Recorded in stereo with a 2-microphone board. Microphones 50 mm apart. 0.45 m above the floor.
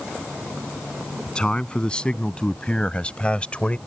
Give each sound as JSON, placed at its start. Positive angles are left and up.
{"t": 1.3, "sound": "a man speaking", "side_deg": 15}